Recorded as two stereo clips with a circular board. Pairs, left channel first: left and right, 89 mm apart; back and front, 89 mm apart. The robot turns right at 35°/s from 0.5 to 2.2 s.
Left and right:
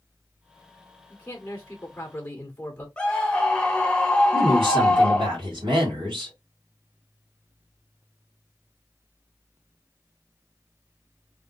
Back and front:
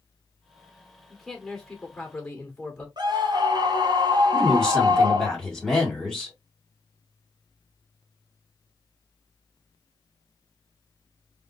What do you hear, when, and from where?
1.1 s a man speaking: 75° left, 1.4 m; by 2.9 s 115° left, 1.4 m
3.0 s a scream: 15° left, 1.3 m
4.3 s a woman speaking: 95° right, 2.5 m